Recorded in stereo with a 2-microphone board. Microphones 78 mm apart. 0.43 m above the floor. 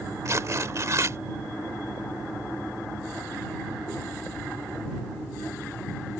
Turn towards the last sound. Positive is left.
turn(degrees=-45)  # may be behind; listen again after turning